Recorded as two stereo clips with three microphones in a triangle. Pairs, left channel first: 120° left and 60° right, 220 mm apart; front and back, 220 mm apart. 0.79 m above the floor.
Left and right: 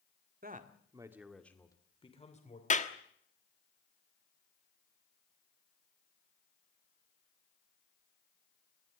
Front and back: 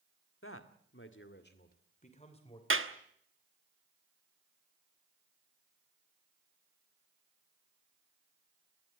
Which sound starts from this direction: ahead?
A man speaking, at 0.4 s.